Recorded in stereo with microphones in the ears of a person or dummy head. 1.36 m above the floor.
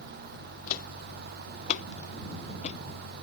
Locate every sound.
0.7 s footsteps: 50° left (ahead or behind); by 2.8 s 40° left (ahead or behind)